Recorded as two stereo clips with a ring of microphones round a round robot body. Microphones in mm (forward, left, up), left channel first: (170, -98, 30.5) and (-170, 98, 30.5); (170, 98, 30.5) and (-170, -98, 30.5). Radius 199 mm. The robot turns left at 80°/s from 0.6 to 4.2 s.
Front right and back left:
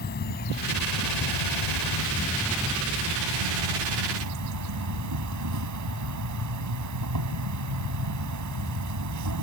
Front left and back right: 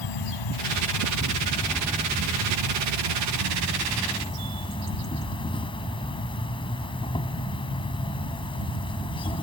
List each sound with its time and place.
0.0 s an insect: 35° left; by 9.4 s 105° left